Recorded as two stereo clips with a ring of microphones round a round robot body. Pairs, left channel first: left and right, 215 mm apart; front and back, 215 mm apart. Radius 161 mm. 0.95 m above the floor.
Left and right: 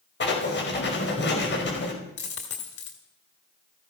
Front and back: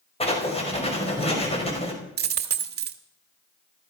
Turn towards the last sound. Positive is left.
turn(degrees=145)